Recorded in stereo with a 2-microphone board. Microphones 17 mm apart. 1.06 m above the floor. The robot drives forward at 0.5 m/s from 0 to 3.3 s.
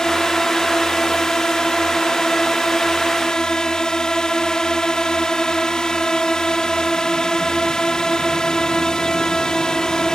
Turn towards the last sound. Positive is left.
turn(degrees=40)  # may be behind; listen again after turning